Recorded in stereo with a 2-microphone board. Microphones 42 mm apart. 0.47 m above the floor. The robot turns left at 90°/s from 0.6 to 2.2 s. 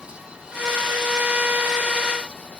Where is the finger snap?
I don't hear a finger snap.